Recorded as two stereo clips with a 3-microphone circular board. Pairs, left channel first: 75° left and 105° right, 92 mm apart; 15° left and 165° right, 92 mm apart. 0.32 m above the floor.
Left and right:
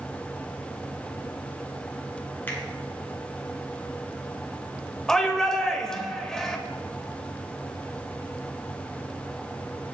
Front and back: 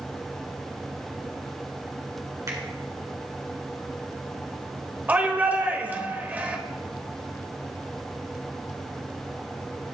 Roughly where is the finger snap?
Behind left.